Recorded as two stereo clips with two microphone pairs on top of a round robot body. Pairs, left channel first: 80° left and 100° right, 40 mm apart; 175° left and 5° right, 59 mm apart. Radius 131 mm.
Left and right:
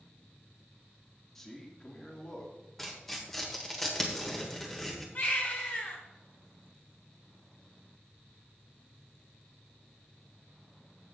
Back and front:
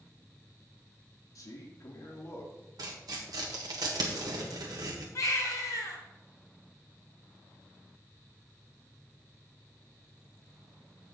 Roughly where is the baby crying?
Behind left.